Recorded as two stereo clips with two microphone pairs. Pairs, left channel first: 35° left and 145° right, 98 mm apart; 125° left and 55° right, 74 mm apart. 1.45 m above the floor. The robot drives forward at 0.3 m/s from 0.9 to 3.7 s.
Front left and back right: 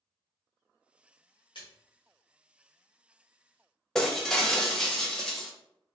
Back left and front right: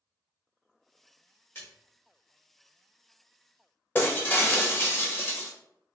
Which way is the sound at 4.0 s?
105° left.